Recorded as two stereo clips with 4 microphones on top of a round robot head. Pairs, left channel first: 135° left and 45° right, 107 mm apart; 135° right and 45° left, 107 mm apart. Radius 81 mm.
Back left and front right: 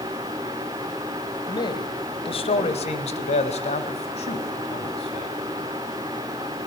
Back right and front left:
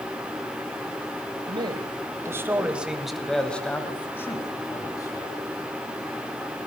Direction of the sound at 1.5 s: 85° left.